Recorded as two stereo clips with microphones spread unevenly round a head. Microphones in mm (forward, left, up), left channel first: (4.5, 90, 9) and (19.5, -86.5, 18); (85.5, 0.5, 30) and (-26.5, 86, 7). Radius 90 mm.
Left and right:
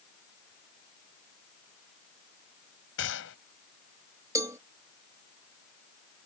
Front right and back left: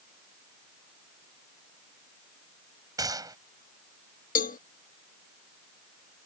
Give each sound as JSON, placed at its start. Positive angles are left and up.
{"t": 3.0, "sound": "a gunshot", "azimuth_deg": 75}
{"t": 4.3, "sound": "a cowbell", "azimuth_deg": -10}